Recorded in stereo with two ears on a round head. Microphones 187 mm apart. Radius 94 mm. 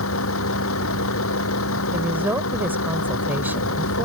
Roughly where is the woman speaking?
Centre.